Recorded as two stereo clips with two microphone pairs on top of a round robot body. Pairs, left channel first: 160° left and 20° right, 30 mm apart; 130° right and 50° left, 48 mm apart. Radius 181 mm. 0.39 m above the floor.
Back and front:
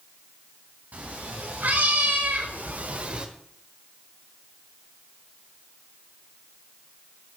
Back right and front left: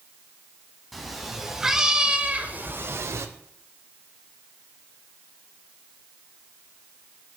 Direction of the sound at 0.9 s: 40° right.